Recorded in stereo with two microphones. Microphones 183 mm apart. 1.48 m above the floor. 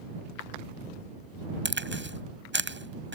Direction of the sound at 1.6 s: 90° right.